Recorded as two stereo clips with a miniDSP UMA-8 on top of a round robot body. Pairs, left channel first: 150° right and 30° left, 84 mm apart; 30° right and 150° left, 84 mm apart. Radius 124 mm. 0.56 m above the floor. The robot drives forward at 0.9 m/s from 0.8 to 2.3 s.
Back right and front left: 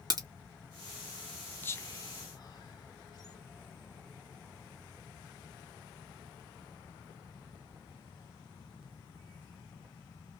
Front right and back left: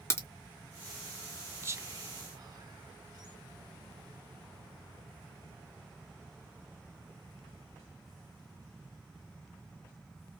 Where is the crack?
15° left, 1.7 m.